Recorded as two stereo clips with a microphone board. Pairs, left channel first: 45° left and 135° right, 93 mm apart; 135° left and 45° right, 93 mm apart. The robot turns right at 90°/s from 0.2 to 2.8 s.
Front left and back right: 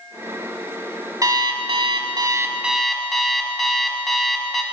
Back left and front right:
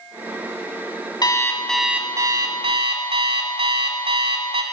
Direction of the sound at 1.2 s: 175° left.